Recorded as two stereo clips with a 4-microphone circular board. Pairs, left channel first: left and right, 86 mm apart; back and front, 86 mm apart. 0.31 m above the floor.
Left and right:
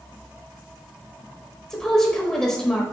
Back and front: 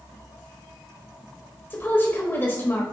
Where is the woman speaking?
165° left, 0.9 m.